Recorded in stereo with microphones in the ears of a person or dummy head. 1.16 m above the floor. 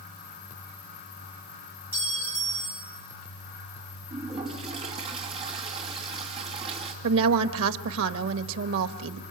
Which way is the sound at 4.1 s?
30° right (ahead or behind).